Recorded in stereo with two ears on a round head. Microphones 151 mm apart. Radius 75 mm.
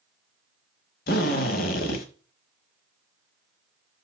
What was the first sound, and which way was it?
A drill, 60° left (ahead or behind).